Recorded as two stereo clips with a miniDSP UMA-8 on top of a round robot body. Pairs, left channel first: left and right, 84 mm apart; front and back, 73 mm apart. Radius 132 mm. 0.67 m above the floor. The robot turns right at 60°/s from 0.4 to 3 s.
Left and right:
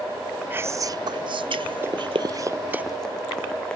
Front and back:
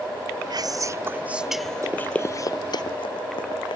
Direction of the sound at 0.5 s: 155° right.